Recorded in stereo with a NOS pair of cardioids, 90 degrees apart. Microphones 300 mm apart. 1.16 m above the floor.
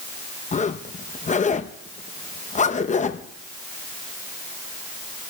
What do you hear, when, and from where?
0.5 s a zipper: 25° left, 0.8 m